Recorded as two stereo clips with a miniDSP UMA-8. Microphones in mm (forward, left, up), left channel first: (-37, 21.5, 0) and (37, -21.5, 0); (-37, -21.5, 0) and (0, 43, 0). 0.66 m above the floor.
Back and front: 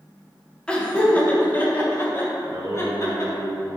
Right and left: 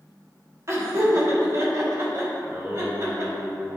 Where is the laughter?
80° left, 1.4 m; by 3.3 s 105° left, 2.5 m.